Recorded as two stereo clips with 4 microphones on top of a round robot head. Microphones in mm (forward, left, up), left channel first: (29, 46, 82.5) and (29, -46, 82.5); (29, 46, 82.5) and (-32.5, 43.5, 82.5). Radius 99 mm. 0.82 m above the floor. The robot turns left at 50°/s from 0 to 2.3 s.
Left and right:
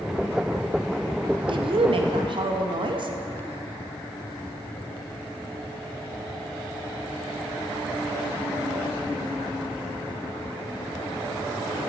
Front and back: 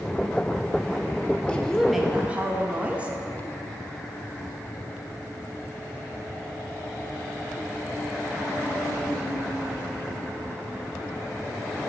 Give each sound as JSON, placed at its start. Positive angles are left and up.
{"t": 1.5, "sound": "a woman speaking", "azimuth_deg": -70, "distance_m": 0.8}